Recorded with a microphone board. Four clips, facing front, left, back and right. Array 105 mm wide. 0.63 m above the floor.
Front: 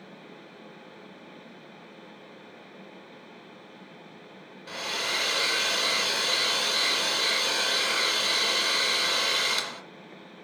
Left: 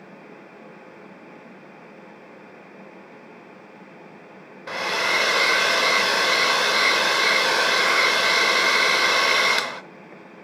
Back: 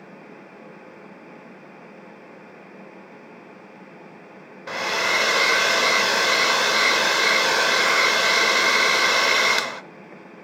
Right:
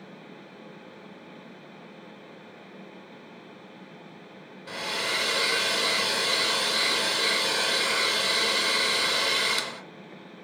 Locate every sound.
4.7 s a hair dryer: 140° left, 0.5 m